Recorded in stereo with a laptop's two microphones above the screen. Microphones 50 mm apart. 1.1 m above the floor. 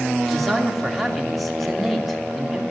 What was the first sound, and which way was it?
A man speaking, centre (ahead or behind).